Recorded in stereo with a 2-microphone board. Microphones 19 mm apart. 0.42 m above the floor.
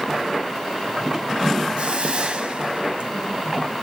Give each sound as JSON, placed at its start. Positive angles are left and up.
{"t": 1.8, "sound": "a hiss", "side_deg": -60, "distance_m": 1.9}